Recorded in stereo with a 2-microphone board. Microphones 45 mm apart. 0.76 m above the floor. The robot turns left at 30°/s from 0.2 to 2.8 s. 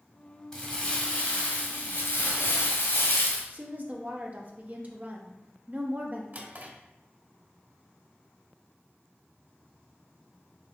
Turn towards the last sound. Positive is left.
turn(degrees=-50)  # may be behind; listen again after turning